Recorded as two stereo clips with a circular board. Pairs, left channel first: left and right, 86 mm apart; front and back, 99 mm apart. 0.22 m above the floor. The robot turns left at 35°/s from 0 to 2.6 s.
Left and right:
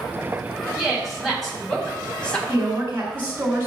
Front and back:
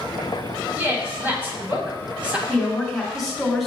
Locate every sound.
0.8 s a woman speaking: 170° right, 1.3 m; by 2.4 s 135° left, 1.3 m
2.5 s a woman speaking: 80° right, 1.5 m; by 3.7 s 85° right, 1.5 m